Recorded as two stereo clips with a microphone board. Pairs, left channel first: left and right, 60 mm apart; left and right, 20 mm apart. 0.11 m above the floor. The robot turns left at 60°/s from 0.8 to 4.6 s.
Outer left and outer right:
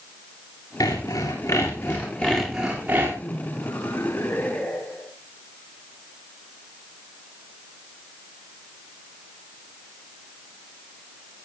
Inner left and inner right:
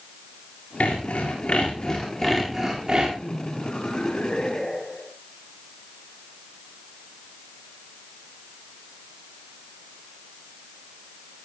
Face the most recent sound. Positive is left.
turn(degrees=10)